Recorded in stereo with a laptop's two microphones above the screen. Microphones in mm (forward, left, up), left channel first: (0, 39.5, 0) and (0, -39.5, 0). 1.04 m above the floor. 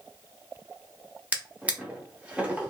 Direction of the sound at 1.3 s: 15° right (ahead or behind).